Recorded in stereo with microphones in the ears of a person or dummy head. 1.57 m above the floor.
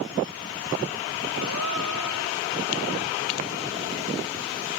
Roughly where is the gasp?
Right.